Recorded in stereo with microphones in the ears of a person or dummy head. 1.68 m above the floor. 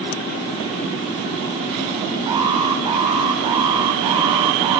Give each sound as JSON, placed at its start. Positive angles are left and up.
{"t": 2.3, "sound": "an alarm", "side_deg": -25, "distance_m": 1.3}